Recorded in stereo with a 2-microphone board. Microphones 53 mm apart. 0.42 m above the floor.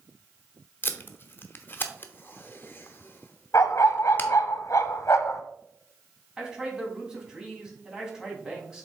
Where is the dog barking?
70° left (ahead or behind), 0.9 m.